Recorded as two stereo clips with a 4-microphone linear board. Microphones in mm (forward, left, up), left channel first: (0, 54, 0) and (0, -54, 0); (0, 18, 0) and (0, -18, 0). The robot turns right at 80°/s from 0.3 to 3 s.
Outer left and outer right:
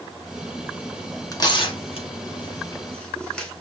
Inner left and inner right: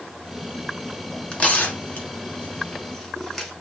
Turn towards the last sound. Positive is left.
turn(degrees=10)  # may be behind; listen again after turning